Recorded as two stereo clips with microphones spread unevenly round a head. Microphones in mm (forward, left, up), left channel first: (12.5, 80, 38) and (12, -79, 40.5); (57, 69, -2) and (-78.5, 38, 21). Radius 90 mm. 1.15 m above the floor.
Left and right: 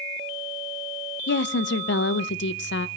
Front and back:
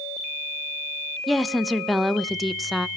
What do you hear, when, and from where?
1.3 s a woman speaking: 105° left, 0.5 m